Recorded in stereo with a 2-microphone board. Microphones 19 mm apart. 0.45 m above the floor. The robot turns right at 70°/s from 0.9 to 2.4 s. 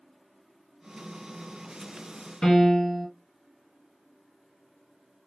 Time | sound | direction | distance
2.4 | a piano | 50° left (ahead or behind) | 1.6 m